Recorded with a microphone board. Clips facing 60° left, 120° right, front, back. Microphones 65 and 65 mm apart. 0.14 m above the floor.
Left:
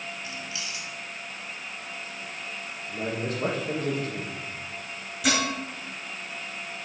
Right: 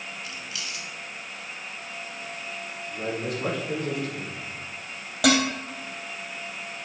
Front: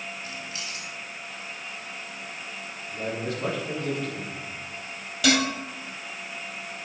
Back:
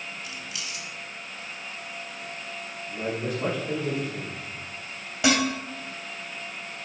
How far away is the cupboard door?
No cupboard door in this recording.